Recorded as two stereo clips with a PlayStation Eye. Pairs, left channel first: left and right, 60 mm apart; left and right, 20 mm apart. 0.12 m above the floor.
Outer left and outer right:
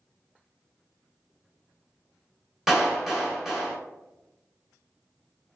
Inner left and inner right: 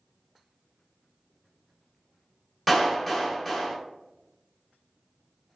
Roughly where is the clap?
Centre.